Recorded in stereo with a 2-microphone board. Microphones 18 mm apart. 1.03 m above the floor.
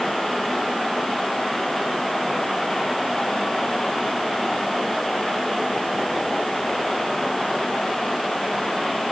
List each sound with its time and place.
Only background noise.